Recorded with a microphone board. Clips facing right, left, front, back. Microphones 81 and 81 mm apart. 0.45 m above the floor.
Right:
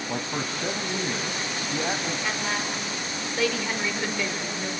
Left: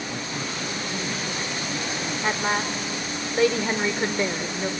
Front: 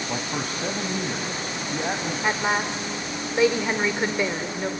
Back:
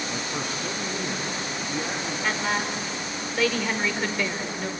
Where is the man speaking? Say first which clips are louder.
Right 1 dB, front 2 dB; 45° right, 2 m.